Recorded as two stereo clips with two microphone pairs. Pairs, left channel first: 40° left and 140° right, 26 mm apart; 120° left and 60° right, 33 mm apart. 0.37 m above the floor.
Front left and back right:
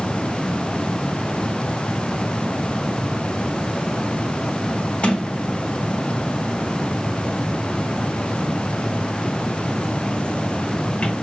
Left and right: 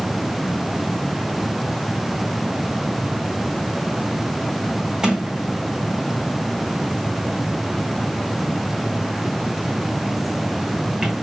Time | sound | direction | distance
5.0 | a sliding door | 5° left | 1.8 m